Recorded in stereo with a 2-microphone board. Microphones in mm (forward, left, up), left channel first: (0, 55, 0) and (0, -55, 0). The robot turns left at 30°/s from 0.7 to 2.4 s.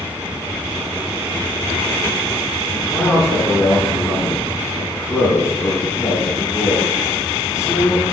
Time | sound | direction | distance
2.7 | a man speaking | 5° left (ahead or behind) | 4 m